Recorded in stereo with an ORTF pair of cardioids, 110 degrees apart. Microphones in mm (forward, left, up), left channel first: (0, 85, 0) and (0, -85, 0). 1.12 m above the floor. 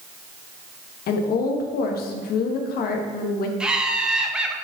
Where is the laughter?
5° right, 0.8 m.